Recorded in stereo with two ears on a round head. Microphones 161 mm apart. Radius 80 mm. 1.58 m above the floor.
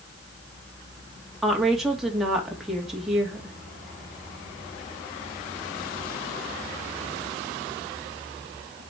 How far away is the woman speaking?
About 2.5 m.